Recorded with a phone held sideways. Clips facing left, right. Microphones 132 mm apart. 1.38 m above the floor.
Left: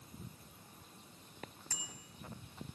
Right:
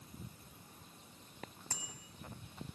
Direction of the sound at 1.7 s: 25° right (ahead or behind).